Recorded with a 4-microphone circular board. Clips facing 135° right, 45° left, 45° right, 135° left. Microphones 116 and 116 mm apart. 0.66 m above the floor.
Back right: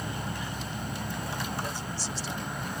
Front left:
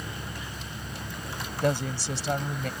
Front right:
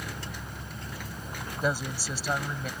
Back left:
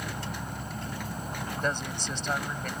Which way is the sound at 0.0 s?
175° right.